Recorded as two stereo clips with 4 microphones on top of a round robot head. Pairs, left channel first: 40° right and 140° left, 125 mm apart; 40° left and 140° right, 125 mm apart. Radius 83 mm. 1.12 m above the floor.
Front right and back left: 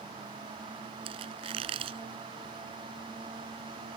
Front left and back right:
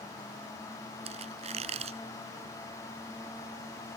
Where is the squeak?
175° right.